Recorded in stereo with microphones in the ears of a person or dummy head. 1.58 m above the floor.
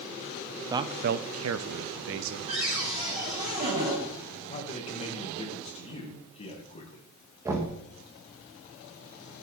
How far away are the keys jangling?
I don't hear keys jangling.